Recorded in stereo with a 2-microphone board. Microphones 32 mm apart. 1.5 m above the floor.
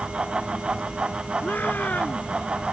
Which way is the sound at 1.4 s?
65° left (ahead or behind).